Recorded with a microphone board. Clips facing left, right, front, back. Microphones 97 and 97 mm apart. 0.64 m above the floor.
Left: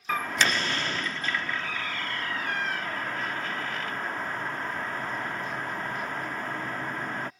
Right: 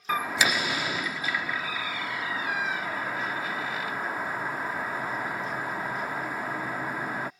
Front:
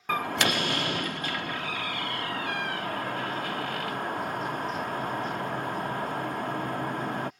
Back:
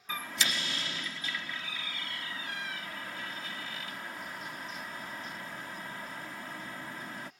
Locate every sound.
0.1 s a door slam: 10° right